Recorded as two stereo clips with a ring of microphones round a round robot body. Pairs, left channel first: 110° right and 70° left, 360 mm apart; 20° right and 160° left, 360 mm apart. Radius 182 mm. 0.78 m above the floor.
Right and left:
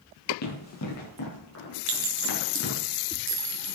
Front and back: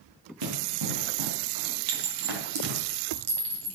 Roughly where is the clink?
Behind left.